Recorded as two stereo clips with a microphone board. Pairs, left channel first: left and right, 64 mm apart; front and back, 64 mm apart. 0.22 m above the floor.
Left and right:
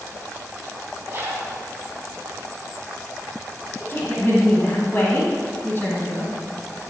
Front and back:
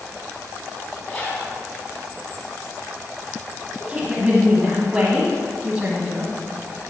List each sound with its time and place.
1.1 s a zipper: 55° right, 1.2 m
3.8 s a woman speaking: 115° left, 1.1 m